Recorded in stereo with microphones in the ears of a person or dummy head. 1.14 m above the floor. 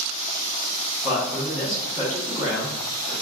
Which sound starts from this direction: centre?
A man speaking, at 1.0 s.